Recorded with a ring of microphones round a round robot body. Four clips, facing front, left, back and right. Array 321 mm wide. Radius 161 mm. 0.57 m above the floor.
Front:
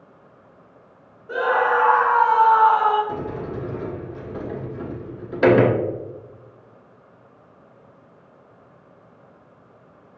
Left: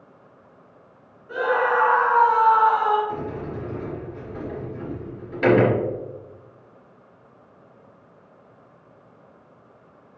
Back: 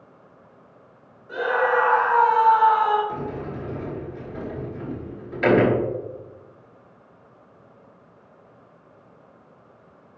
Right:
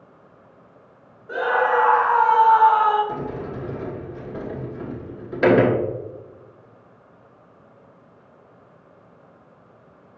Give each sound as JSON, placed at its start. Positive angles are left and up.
{"t": 1.3, "sound": "a scream", "azimuth_deg": -45, "distance_m": 3.0}
{"t": 3.1, "sound": "a sliding door", "azimuth_deg": -35, "distance_m": 3.0}